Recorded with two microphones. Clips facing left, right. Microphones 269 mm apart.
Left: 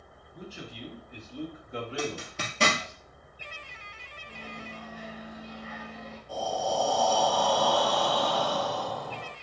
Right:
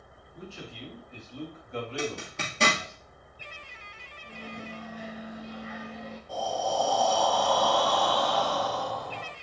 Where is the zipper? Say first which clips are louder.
Even; centre (ahead or behind), 1.9 m.